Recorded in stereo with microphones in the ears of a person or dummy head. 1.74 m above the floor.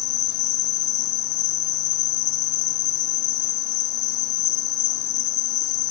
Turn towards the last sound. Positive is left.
turn(degrees=70)  # may be behind; listen again after turning